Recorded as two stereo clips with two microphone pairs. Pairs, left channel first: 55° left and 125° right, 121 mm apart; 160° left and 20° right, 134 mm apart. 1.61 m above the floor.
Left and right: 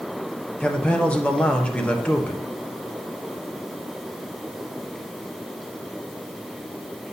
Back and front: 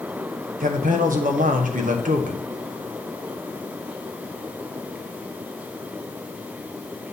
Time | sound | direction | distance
0.6 | a man speaking | 25° right | 0.9 m